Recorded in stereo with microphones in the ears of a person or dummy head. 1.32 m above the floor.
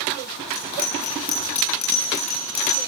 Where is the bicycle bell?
40° left (ahead or behind), 9 m.